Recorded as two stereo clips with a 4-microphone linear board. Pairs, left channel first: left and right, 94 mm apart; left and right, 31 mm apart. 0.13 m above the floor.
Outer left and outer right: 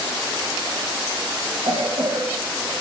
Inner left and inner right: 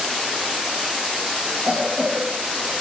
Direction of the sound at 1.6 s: 55° right (ahead or behind).